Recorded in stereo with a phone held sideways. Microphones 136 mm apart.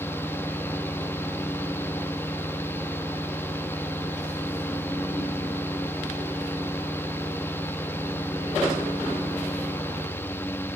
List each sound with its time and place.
0.0 s a fan: 15° left (ahead or behind), 1.3 m